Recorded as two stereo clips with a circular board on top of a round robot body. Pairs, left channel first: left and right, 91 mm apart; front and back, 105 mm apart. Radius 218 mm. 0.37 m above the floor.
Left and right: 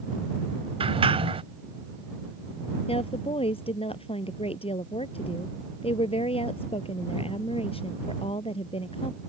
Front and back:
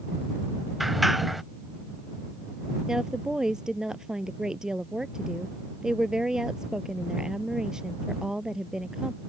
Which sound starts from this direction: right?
A sliding door, at 0.8 s.